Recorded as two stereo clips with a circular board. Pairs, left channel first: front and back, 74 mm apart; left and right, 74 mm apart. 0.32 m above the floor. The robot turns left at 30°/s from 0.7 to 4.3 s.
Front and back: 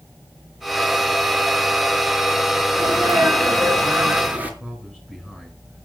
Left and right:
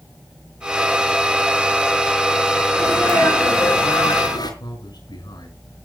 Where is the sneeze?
155° left, 5 m; by 4.5 s 110° left, 5 m.